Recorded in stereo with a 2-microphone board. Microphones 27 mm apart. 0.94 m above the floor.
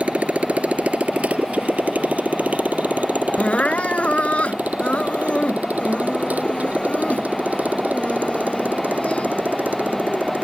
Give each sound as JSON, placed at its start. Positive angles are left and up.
{"t": 0.0, "sound": "a motorcycle", "side_deg": -50}
{"t": 3.4, "sound": "crying", "side_deg": 50}